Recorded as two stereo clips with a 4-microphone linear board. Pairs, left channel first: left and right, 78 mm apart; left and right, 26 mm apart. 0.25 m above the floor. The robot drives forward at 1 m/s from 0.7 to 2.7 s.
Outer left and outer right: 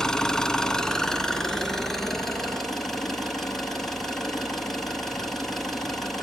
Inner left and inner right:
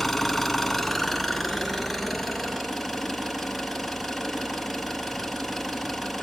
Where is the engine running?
10° left (ahead or behind), 1.4 m; by 6.2 s 5° left (ahead or behind), 3.5 m.